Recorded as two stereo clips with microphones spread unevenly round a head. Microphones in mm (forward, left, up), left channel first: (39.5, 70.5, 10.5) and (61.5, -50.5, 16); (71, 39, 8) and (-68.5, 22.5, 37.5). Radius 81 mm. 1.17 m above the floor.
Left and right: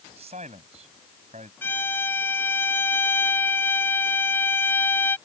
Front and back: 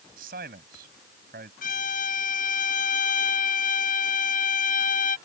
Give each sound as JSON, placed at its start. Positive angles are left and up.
{"t": 0.2, "sound": "a man speaking", "azimuth_deg": -135}
{"t": 1.6, "sound": "a violin", "azimuth_deg": 30}